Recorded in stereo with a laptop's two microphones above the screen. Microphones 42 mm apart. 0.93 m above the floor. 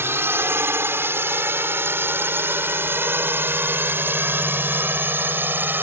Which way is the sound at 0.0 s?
60° right (ahead or behind).